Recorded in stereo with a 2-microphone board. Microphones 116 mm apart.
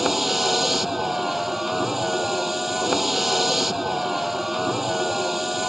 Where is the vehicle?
Centre (ahead or behind).